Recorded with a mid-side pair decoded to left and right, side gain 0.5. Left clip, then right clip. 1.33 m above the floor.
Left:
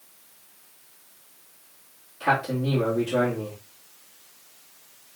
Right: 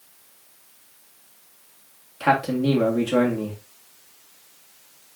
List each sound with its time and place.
2.2 s a man speaking: 50° right, 1.9 m